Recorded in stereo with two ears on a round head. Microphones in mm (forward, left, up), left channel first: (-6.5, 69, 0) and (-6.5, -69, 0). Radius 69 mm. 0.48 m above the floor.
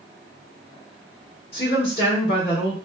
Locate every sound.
1.5 s a woman speaking: 40° left (ahead or behind), 1.7 m